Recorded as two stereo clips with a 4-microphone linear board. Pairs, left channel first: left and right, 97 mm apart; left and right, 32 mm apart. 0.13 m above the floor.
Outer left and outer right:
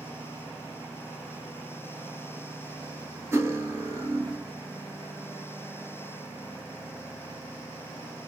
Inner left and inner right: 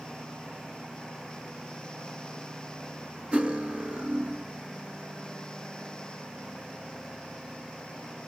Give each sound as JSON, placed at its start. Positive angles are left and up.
{"t": 3.3, "sound": "cutlery clinking", "side_deg": -30, "distance_m": 1.2}